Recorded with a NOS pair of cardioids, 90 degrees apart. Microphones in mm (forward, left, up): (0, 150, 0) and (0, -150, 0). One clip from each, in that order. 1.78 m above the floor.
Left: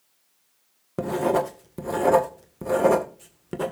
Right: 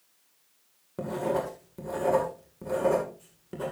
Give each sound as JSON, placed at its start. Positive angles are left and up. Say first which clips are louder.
{"t": 1.0, "sound": "writing", "louder": "left 6 dB", "azimuth_deg": 55, "distance_m": 1.8}